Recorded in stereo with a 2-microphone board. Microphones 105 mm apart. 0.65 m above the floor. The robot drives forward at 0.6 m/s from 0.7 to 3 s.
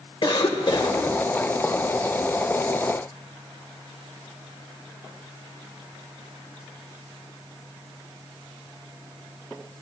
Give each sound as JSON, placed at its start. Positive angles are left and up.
{"t": 0.2, "sound": "a cough", "side_deg": 50, "distance_m": 2.0}